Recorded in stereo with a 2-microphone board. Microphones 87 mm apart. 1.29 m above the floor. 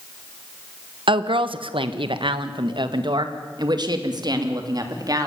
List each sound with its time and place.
1.1 s a woman speaking: 70° right (ahead or behind), 1.3 m; by 5.3 s 45° right (ahead or behind), 3 m